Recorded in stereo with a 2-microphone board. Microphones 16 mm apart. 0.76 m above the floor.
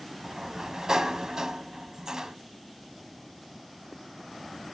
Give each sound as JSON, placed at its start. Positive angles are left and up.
{"t": 0.2, "sound": "a sliding door", "side_deg": -40, "distance_m": 0.7}